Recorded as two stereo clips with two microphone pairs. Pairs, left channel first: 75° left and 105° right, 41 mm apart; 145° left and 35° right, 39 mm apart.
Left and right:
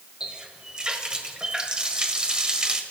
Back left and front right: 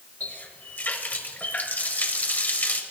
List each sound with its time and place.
0.2 s a running tap: 175° right, 1.5 m